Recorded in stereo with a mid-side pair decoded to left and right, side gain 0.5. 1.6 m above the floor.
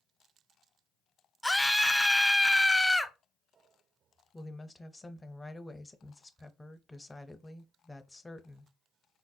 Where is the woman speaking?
15° left, 0.6 m.